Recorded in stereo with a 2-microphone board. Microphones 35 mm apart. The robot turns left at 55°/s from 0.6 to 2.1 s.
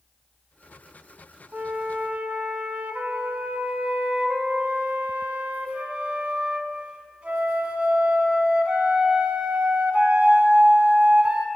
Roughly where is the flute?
Ahead right.